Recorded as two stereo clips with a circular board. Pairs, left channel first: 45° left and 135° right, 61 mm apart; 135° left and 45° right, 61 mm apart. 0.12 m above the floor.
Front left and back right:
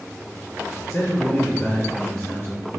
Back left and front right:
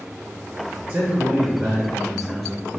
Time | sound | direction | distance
0.9 | a man speaking | 30° right | 1.3 m